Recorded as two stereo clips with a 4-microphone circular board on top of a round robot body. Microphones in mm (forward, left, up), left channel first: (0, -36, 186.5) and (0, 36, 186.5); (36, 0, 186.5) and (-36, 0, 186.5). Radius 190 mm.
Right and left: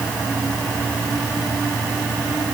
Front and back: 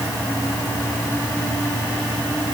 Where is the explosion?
I don't hear an explosion.